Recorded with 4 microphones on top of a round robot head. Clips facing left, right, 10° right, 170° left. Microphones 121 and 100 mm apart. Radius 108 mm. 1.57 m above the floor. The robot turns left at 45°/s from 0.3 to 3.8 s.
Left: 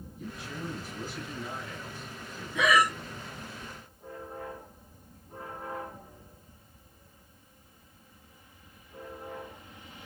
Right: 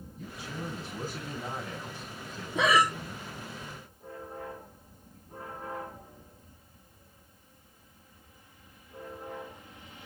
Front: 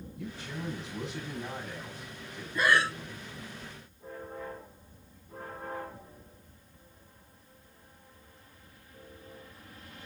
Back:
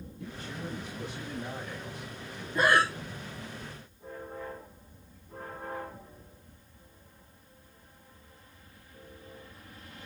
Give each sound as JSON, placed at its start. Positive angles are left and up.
{"t": 0.2, "sound": "a man speaking", "azimuth_deg": 5, "distance_m": 7.5}
{"t": 2.5, "sound": "breathing", "azimuth_deg": -120, "distance_m": 1.2}